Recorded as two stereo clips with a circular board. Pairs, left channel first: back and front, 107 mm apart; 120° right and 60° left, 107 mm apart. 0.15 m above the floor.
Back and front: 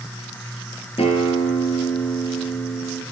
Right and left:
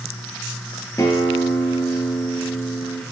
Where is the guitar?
Straight behind, 1.7 m.